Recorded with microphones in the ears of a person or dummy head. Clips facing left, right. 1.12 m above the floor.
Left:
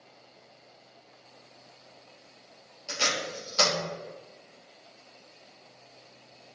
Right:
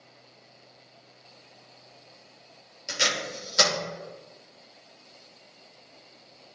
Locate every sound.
2.9 s tape being pulled: 25° right (ahead or behind), 2.5 m